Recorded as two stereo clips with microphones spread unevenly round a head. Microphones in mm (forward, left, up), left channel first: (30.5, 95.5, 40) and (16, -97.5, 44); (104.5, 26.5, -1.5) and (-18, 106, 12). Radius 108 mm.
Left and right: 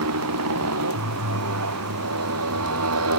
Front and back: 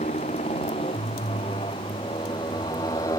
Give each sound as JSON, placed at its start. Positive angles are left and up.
{"t": 0.0, "sound": "a motorcycle", "azimuth_deg": -100}